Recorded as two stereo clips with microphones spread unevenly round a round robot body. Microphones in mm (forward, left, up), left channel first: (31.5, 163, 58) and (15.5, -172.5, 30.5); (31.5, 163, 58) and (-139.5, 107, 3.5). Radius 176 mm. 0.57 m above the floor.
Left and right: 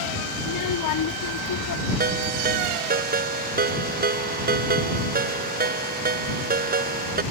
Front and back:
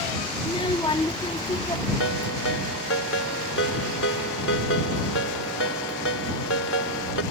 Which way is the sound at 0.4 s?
90° left.